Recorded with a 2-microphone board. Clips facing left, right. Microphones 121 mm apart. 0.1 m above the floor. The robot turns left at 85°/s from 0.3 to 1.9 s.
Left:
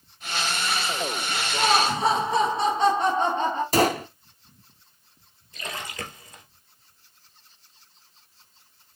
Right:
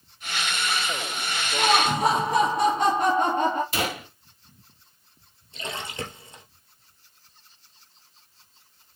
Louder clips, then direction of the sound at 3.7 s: Left 8 dB; 40° left (ahead or behind).